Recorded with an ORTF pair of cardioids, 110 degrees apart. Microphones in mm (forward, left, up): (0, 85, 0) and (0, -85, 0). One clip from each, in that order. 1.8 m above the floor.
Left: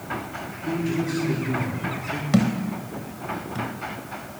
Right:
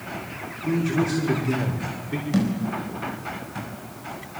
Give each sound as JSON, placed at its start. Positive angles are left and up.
{"t": 0.6, "sound": "a man speaking", "azimuth_deg": -30, "distance_m": 5.5}
{"t": 2.3, "sound": "a thud", "azimuth_deg": 35, "distance_m": 4.5}